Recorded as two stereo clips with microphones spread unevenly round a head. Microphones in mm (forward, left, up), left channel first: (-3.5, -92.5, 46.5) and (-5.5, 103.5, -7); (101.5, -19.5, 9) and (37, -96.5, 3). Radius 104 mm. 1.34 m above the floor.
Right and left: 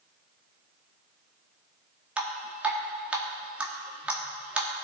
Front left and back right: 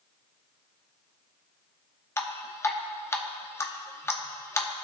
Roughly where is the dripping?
Ahead.